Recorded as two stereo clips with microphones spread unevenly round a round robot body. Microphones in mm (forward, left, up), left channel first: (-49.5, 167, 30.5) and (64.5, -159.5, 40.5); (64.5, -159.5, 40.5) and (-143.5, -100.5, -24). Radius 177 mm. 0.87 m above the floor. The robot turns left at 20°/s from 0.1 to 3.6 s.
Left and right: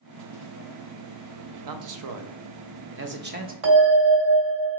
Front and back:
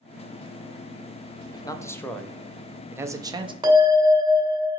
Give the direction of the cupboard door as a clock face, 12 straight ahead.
No cupboard door in this recording.